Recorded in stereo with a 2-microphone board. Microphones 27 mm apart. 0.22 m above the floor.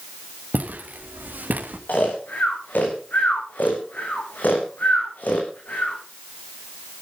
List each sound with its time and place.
0.5 s footsteps: 80° right, 5 m
1.9 s snoring: 75° left (ahead or behind), 5.5 m